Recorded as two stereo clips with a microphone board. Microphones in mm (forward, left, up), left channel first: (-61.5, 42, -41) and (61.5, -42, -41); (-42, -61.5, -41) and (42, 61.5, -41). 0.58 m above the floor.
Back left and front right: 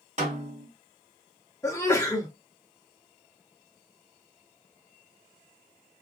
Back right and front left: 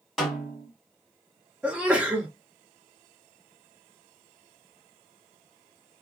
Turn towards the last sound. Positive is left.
turn(degrees=125)